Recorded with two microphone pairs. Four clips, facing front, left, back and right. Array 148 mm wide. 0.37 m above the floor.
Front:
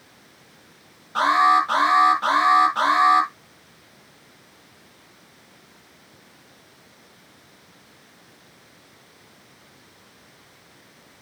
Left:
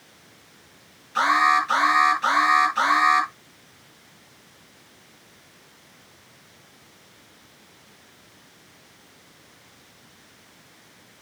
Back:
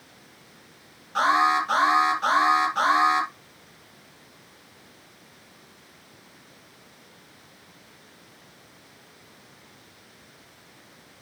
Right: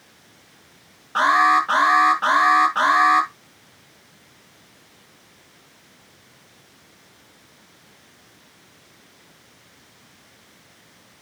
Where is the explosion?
No explosion in this recording.